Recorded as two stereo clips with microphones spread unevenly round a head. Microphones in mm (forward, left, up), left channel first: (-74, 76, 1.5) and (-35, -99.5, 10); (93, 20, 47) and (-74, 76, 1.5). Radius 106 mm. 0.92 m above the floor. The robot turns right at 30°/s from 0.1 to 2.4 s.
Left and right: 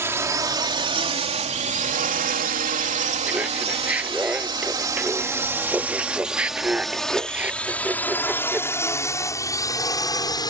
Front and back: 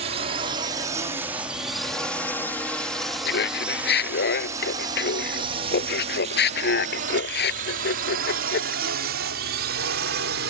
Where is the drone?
150° right; by 10.5 s 170° left.